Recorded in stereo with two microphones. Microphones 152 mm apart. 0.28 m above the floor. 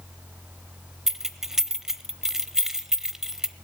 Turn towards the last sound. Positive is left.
turn(degrees=-5)  # may be behind; listen again after turning